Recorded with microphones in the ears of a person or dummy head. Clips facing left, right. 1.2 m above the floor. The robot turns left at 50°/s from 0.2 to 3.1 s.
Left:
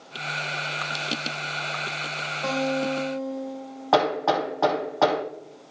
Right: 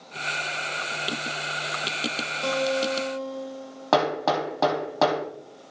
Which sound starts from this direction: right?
Hammering, at 3.9 s.